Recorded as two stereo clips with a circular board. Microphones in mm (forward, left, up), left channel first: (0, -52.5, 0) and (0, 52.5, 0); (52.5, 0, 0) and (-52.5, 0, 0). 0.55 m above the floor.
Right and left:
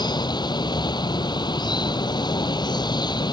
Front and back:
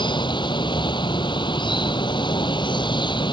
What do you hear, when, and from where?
0.0 s running water: 45° right